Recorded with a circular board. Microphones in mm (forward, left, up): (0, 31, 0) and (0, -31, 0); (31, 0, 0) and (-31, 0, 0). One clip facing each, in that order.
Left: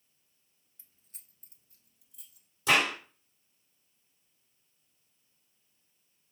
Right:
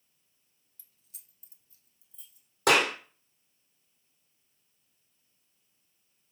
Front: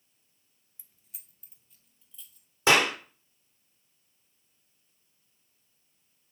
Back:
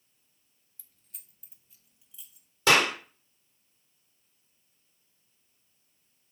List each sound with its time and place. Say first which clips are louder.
0.8 s keys jangling: left 2 dB, even; 60° left, 1.0 m; by 2.5 s 105° left, 2.5 m
2.7 s a clap: right 3 dB, even; 70° right, 3.5 m